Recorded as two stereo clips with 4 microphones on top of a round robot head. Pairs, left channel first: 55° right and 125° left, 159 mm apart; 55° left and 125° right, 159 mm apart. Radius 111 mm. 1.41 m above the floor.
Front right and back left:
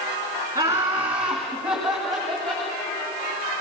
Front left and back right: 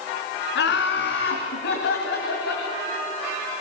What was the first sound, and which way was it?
Laughter, 55° left.